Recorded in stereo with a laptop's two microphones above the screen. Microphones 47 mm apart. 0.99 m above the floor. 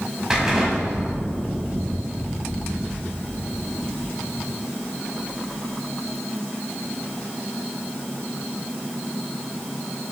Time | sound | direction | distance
0.3 | an explosion | 10° right (ahead or behind) | 0.8 m